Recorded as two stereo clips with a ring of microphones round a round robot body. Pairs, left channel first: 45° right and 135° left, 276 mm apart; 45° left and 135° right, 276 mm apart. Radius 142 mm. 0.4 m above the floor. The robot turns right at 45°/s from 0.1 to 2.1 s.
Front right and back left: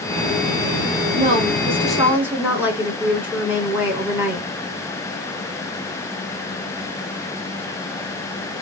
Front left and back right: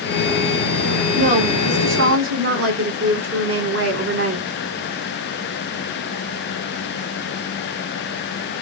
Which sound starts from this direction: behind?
A woman speaking, at 1.2 s.